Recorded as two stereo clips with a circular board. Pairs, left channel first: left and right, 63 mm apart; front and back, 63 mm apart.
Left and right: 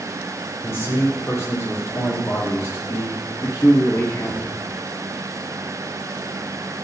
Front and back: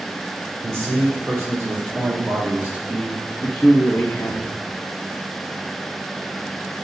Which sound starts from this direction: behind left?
A man speaking, at 0.6 s.